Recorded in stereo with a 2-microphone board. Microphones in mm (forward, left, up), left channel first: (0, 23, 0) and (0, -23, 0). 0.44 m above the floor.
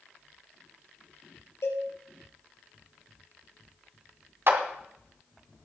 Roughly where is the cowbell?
Left.